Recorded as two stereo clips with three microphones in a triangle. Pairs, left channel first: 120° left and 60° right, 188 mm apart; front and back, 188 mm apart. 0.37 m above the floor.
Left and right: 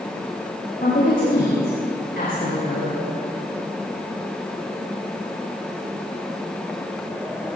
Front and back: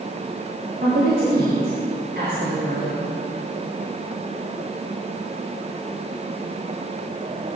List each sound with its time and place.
0.8 s a woman speaking: 160° left, 6 m; by 2.9 s 145° left, 5.5 m